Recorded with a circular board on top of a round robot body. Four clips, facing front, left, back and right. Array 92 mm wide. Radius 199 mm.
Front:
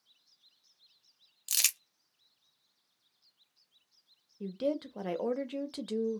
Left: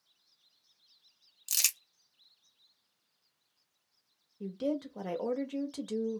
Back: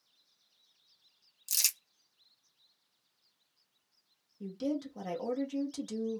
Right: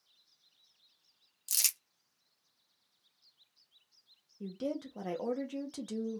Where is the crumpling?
10° left, 1.0 m.